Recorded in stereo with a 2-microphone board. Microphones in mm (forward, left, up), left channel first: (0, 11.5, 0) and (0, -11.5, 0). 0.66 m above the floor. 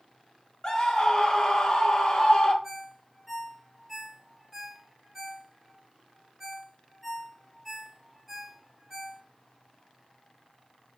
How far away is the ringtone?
About 1.2 m.